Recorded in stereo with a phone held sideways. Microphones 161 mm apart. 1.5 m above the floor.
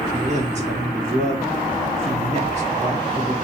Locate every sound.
0.1 s a man speaking: 45° right (ahead or behind), 2.5 m